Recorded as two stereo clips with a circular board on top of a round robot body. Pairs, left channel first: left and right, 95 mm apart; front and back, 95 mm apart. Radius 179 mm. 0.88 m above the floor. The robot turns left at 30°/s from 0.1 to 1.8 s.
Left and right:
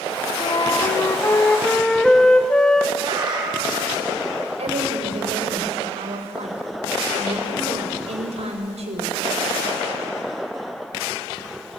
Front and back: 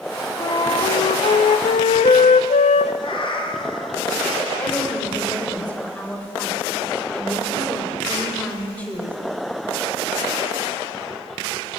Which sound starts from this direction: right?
A woman speaking, at 4.6 s.